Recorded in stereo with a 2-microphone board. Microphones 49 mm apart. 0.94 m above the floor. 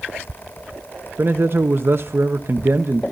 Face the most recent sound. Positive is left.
turn(degrees=-50)  # may be behind; listen again after turning